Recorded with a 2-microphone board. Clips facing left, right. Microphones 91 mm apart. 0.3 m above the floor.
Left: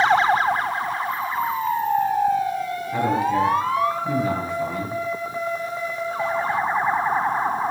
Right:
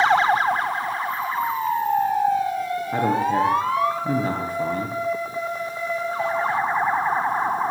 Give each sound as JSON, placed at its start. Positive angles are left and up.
{"t": 2.9, "sound": "a man speaking", "side_deg": -45, "distance_m": 7.0}